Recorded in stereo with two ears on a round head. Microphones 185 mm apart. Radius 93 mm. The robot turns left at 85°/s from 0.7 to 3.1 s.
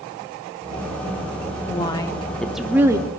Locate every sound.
1.7 s a woman speaking: 25° left (ahead or behind), 0.7 m; by 3.1 s 20° right (ahead or behind), 0.7 m